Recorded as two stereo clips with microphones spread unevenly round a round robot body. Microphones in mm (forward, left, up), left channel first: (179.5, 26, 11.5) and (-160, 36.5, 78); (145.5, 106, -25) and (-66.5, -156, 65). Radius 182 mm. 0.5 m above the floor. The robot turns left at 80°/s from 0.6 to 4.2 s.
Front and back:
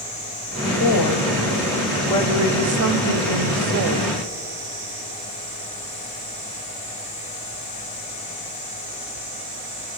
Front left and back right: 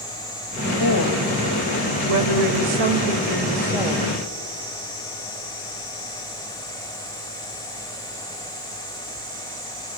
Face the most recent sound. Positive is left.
turn(degrees=120)